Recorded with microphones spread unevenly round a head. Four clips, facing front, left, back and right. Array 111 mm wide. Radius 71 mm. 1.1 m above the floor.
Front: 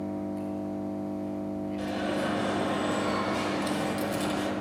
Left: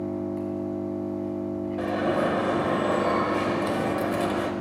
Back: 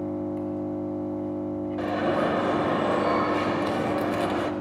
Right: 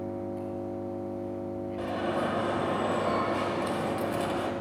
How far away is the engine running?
About 1.7 m.